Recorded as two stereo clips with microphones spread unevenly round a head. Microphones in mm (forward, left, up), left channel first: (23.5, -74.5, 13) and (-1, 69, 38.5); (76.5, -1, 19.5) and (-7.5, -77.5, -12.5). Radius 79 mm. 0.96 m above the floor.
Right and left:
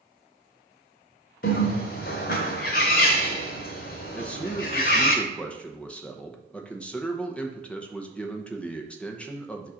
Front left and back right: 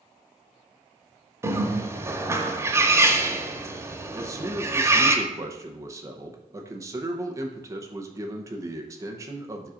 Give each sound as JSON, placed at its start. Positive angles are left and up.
{"t": 1.4, "sound": "a bird", "azimuth_deg": -65, "distance_m": 0.9}
{"t": 4.2, "sound": "a man speaking", "azimuth_deg": -145, "distance_m": 0.7}